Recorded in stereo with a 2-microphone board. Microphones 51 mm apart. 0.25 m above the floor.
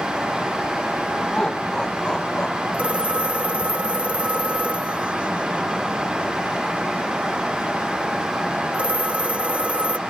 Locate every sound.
1.3 s laughter: 15° left (ahead or behind); by 2.6 s 20° left (ahead or behind)
2.7 s a phone ringing: 20° right (ahead or behind)